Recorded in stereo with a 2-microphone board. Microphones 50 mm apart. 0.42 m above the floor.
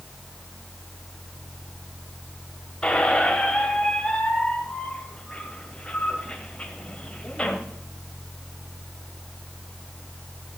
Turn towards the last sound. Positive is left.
turn(degrees=25)  # may be behind; listen again after turning